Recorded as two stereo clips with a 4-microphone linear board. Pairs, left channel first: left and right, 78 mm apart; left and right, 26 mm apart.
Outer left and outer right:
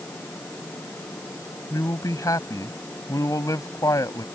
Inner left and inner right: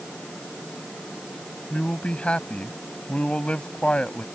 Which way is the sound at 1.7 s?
45° left (ahead or behind).